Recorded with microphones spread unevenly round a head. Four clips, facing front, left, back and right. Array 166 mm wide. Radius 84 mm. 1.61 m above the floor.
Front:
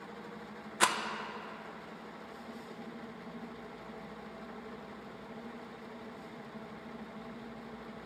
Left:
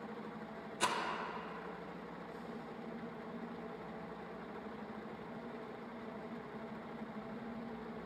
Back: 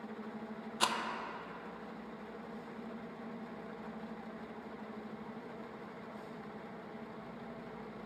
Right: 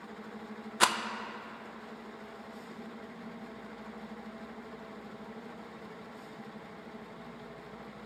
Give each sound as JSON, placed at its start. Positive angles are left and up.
{"t": 0.8, "sound": "a rattle", "azimuth_deg": -70, "distance_m": 0.5}